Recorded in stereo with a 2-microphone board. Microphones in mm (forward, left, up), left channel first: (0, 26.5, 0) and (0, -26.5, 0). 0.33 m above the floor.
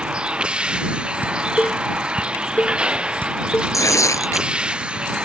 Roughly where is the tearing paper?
Left.